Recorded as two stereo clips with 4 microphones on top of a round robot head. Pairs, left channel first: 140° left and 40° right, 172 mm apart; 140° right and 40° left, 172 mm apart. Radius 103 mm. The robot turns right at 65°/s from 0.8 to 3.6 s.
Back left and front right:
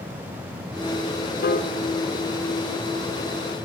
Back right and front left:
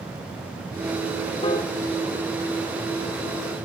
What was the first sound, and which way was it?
A piano, 160° left.